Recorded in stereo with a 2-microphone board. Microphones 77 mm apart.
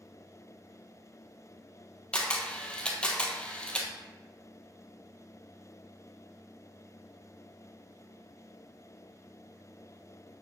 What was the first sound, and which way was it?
A camera shutter, 15° left (ahead or behind).